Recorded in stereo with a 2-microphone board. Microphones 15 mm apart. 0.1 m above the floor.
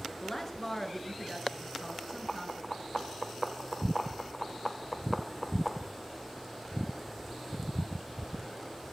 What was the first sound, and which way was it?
A woman speaking, 20° left (ahead or behind).